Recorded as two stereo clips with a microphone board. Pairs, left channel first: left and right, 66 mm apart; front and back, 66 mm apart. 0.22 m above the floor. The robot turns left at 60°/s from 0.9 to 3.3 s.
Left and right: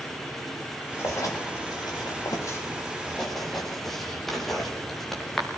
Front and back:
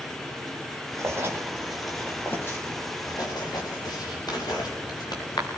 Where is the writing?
140° left, 7 m; by 5.5 s 5° left, 7 m.